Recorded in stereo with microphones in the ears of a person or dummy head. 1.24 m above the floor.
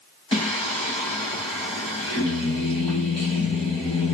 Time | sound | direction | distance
0.3 | singing | 30° left (ahead or behind) | 1.6 m